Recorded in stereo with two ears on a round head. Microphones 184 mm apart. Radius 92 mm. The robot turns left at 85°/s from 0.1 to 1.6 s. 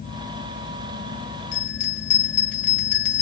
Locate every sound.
1.5 s a bell: 70° left (ahead or behind), 1.3 m; by 3.2 s 75° left (ahead or behind), 1.3 m